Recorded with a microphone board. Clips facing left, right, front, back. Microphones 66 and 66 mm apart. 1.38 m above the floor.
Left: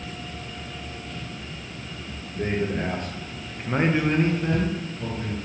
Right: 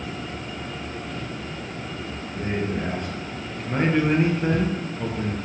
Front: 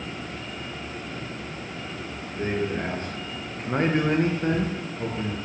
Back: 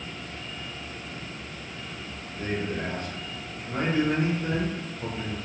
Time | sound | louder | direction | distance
2.4 | a man speaking | left 1 dB, front 3 dB | 65° left | 1.0 m